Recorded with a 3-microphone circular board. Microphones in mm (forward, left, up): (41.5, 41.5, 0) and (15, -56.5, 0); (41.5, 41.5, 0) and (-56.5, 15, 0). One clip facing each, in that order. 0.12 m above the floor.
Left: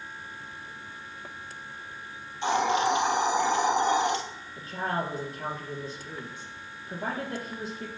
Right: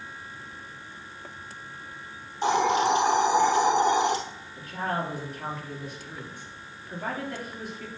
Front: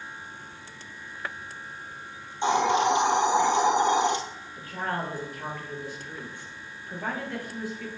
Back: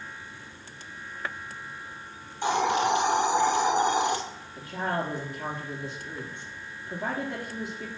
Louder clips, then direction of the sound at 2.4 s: Right 2 dB, front 2 dB; 55° right.